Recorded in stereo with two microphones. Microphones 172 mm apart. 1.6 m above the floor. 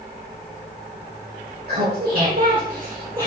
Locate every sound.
1.7 s laughter: 75° right (ahead or behind), 1.3 m; by 3.3 s 25° right (ahead or behind), 1.1 m